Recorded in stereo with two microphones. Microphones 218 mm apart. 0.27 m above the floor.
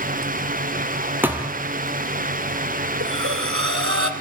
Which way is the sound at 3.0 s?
75° right (ahead or behind).